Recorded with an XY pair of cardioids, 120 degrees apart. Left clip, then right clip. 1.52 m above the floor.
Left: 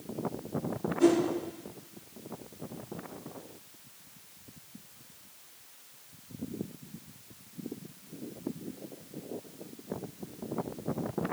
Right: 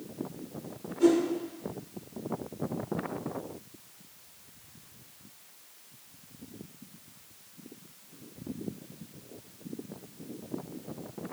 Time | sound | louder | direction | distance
1.0 | a whoosh | right 1 dB | 20° left | 0.8 m